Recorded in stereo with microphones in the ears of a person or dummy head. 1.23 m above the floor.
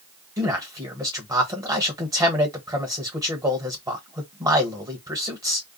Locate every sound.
0.4 s a man speaking: 25° right (ahead or behind), 1.2 m